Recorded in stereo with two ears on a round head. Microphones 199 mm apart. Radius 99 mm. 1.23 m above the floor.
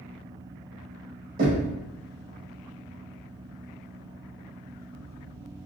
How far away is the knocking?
About 0.8 m.